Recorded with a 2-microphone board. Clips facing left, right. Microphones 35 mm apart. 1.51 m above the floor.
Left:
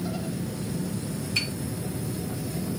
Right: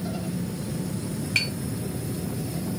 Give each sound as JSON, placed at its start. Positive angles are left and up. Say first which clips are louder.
{"t": 1.4, "sound": "tapping", "louder": "right 4 dB", "side_deg": -55, "distance_m": 1.0}